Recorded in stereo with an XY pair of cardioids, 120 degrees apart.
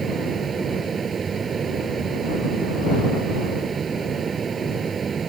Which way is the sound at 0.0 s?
35° right.